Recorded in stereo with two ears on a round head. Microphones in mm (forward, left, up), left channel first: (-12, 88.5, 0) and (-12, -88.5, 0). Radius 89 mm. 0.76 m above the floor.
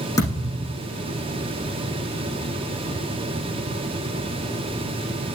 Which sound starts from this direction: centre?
A thud, at 0.2 s.